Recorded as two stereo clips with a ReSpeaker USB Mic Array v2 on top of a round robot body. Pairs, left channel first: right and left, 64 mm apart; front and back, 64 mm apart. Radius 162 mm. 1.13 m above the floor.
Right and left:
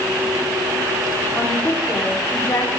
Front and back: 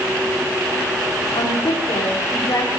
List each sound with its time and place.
1.4 s a woman speaking: 25° right, 4 m; by 2.7 s 45° right, 5 m